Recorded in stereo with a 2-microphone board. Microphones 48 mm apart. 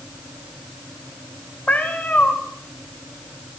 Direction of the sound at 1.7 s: 30° left (ahead or behind).